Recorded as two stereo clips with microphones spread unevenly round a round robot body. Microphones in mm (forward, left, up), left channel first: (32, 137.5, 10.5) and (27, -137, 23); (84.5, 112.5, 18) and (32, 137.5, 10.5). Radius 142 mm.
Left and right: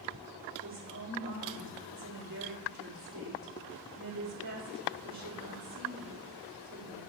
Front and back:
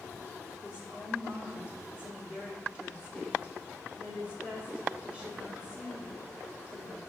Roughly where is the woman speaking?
Behind right.